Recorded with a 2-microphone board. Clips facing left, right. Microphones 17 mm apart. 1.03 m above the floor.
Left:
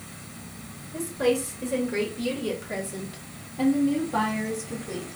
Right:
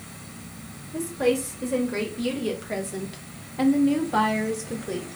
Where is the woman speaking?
5° right (ahead or behind), 2 m; by 5.1 s 35° right (ahead or behind), 1.0 m.